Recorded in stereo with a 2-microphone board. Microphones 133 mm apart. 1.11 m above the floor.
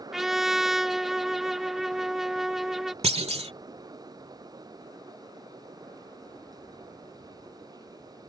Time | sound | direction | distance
0.1 | a trumpet | centre (ahead or behind) | ?
3.0 | a clunk | 50° right (ahead or behind) | ?